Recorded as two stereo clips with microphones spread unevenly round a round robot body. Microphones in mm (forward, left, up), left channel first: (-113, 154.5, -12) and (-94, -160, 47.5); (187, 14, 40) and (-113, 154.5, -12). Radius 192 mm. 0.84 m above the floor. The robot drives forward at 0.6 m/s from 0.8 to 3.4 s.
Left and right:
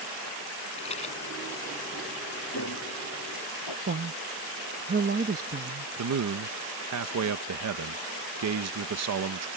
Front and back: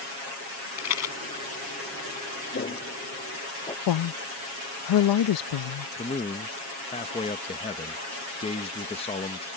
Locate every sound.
0.8 s a rattle: 15° left
2.5 s footsteps: 35° left; by 3.8 s 50° left
3.9 s a woman speaking: 20° right
6.0 s a man speaking: 100° right